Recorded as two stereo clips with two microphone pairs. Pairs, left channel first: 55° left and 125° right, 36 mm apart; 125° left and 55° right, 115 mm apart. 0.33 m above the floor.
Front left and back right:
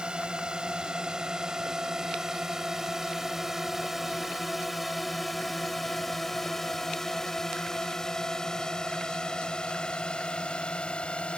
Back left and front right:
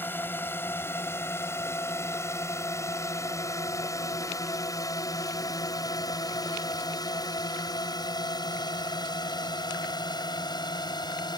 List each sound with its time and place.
0.0 s a drone: 175° right; by 11.4 s 100° left